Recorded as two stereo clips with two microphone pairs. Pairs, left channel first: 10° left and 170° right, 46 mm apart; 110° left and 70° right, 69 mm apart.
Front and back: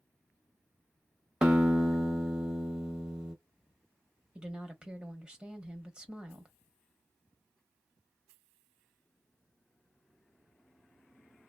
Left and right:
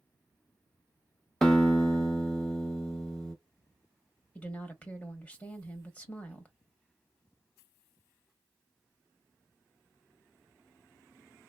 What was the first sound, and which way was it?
A guitar, 175° left.